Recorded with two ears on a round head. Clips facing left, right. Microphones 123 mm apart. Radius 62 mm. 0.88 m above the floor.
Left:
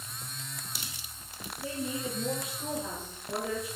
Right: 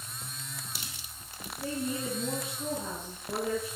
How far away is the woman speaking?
About 9.5 m.